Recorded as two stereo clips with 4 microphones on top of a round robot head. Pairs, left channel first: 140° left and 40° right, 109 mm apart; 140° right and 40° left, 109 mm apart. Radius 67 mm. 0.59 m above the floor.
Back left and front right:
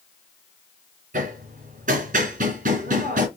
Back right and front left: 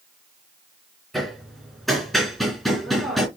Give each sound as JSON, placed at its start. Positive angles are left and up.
{"t": 1.1, "sound": "hammering", "azimuth_deg": -55, "distance_m": 2.5}